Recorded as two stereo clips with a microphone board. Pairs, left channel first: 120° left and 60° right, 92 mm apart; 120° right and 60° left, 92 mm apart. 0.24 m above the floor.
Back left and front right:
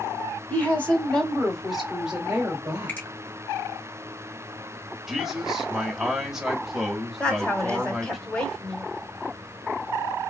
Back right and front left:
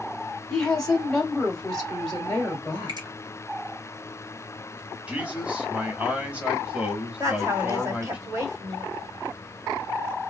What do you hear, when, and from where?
0.5 s a woman speaking: 160° left, 1.4 m; by 3.1 s 35° right, 1.4 m
2.9 s a finger snap: 55° left, 1.3 m
5.1 s a man speaking: 15° left, 1.0 m
7.2 s a woman speaking: 50° left, 1.5 m